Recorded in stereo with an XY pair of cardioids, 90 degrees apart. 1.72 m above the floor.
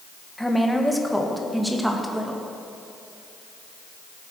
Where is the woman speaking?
5° left, 1.6 m; by 2.4 s 10° right, 2.5 m.